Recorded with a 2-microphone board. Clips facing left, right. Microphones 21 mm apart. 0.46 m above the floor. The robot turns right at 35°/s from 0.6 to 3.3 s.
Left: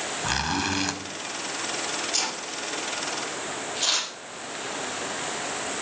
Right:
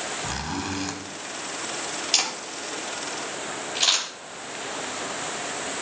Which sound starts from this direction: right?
A camera shutter, at 2.1 s.